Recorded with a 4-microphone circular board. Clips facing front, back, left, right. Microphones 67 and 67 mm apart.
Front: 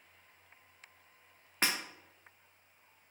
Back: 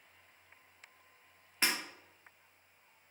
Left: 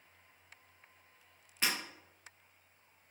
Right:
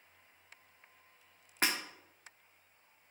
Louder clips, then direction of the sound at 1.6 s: Front 1 dB, right 2 dB; 45° right.